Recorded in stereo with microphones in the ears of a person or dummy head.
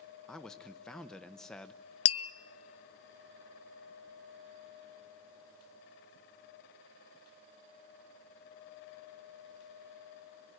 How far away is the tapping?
About 0.7 m.